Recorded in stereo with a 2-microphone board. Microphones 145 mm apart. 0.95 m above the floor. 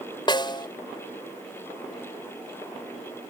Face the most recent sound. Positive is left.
turn(degrees=30)  # may be behind; listen again after turning